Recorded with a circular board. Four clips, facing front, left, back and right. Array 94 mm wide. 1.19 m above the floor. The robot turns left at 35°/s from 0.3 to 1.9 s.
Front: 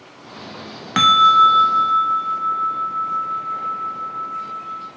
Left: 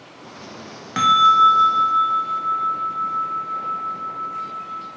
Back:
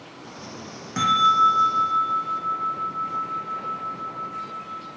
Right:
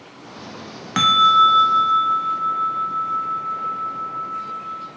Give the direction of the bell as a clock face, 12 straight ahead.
1 o'clock.